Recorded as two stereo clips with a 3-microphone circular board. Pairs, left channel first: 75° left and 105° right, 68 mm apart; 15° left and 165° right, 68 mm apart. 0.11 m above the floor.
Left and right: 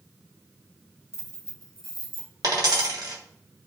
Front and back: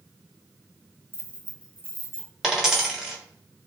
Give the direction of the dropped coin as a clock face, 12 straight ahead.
3 o'clock.